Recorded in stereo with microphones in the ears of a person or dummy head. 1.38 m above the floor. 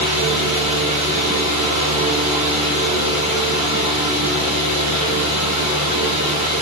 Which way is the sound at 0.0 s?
40° right (ahead or behind).